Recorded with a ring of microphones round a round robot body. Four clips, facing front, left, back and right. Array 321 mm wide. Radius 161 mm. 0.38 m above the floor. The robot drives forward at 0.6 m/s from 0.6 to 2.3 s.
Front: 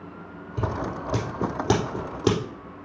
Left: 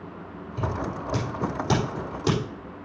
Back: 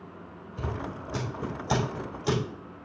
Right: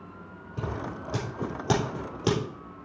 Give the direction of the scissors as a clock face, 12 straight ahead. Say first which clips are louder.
Left 4 dB, front 6 dB; 12 o'clock.